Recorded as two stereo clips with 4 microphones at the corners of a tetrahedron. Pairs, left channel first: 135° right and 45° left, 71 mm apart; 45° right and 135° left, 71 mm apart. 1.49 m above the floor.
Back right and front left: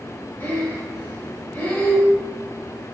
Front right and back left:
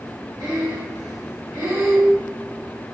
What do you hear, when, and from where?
0.4 s breathing: 165° left, 1.1 m